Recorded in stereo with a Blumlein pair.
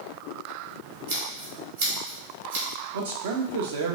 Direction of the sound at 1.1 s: 65° right.